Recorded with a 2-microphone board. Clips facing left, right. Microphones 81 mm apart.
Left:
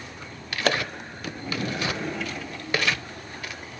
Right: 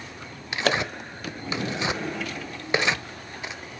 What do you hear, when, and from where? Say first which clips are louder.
0.5 s tearing paper: right 1 dB; 20° right (ahead or behind), 0.8 m